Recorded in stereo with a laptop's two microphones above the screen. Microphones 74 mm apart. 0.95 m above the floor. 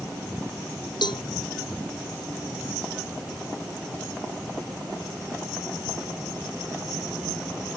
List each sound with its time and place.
1.0 s a cowbell: 85° left